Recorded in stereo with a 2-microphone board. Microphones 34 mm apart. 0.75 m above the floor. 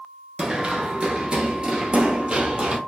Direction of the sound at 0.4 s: 20° right (ahead or behind).